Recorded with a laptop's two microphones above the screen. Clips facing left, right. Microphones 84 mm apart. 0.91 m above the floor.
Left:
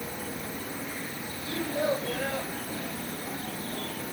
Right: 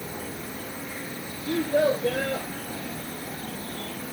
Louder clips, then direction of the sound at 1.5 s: Right 6 dB; 80° right.